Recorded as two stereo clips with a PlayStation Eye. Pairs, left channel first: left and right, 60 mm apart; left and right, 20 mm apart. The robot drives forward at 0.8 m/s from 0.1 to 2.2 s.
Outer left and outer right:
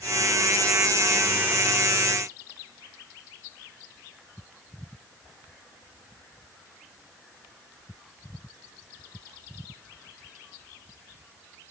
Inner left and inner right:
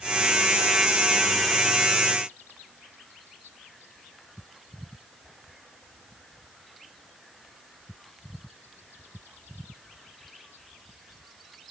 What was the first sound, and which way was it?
Only background noise.